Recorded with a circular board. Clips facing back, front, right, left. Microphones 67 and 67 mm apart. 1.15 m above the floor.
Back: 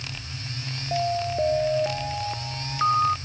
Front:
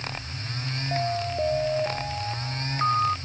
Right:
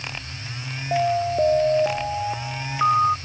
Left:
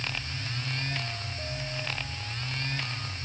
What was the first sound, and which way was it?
An alarm, 100° right.